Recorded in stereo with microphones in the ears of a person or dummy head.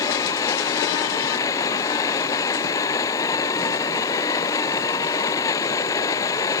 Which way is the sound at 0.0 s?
20° left (ahead or behind).